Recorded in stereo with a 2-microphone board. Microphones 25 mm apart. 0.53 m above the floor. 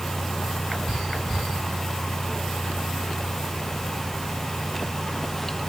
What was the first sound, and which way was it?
Only background noise.